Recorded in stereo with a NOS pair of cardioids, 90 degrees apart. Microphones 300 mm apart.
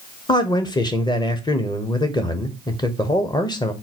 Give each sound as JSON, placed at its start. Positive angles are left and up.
{"t": 0.3, "sound": "a man speaking", "azimuth_deg": 15, "distance_m": 0.9}